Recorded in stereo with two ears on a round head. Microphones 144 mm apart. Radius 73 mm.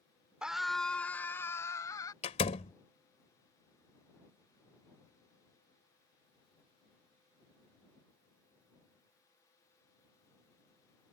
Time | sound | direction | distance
0.4 | a scream | 5° right (ahead or behind) | ?
2.2 | a door slam | 45° left (ahead or behind) | ?